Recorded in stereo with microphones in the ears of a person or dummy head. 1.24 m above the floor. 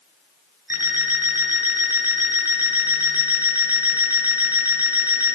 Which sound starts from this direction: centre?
An alarm clock, at 0.7 s.